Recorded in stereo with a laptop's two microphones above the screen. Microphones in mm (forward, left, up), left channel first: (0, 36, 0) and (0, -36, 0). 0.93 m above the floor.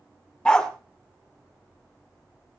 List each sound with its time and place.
0.5 s a dog barking: 10° left (ahead or behind), 1.3 m